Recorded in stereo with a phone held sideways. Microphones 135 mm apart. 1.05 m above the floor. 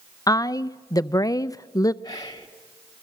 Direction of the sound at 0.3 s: 25° left (ahead or behind).